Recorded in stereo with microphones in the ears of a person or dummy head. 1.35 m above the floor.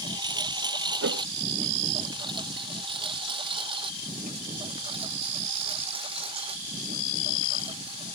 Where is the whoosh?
65° right (ahead or behind).